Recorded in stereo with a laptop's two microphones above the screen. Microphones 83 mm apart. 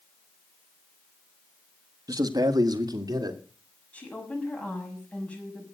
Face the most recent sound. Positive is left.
turn(degrees=15)  # may be behind; listen again after turning